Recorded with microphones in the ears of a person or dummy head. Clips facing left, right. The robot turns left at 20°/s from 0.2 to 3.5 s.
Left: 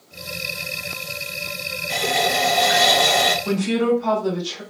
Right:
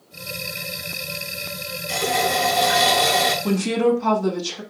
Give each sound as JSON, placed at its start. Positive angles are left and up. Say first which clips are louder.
{"t": 1.9, "sound": "a running tap", "louder": "even", "side_deg": -65, "distance_m": 2.5}
{"t": 3.4, "sound": "a woman speaking", "louder": "right 2 dB", "side_deg": -80, "distance_m": 1.7}